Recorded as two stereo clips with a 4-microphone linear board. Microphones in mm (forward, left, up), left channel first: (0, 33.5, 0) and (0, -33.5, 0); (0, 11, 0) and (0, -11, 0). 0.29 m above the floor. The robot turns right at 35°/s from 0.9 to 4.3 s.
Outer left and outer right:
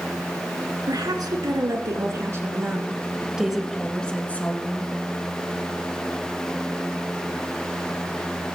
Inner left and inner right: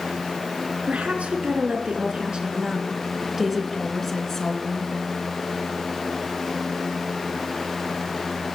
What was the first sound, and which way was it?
A woman speaking, 95° right.